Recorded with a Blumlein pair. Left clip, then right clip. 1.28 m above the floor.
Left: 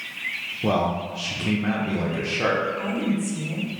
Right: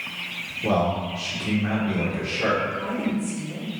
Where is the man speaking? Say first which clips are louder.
Right 1 dB; 15° left, 0.6 m.